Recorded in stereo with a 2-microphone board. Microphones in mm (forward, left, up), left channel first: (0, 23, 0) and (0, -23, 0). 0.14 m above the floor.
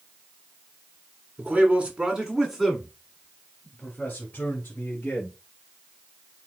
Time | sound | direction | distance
1.4 | a man speaking | 40° right (ahead or behind) | 2 m